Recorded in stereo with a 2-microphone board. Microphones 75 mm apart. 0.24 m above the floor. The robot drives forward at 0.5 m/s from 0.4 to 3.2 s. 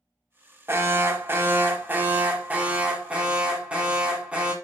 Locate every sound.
0.7 s an alarm: 30° right (ahead or behind), 0.7 m; by 4.5 s 15° right (ahead or behind), 1.3 m